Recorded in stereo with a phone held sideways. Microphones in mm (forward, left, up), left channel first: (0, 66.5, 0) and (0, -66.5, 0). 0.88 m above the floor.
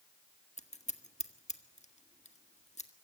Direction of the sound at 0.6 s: 60° left (ahead or behind).